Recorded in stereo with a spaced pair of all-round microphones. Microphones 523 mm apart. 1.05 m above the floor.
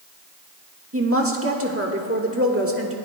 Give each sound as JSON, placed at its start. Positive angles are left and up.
{"t": 0.9, "sound": "a woman speaking", "side_deg": -25, "distance_m": 1.4}